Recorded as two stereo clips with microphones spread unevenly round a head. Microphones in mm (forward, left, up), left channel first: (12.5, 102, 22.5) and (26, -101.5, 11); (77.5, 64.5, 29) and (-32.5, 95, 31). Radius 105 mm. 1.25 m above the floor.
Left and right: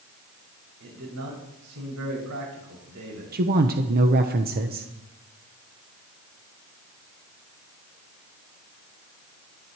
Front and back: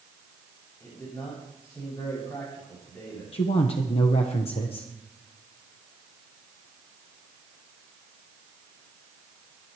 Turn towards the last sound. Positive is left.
turn(degrees=-50)